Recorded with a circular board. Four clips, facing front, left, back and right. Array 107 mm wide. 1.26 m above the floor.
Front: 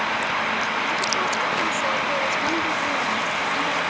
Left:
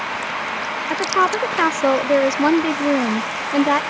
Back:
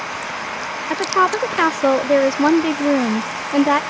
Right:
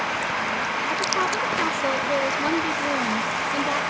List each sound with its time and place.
0.9 s a woman speaking: 145° left